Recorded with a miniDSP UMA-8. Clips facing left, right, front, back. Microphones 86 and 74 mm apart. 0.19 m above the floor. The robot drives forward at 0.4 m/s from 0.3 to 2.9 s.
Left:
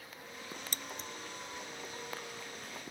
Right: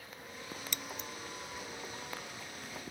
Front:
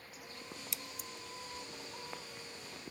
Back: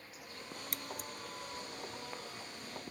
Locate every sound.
0.7 s scissors: 140° left; by 1.1 s 145° left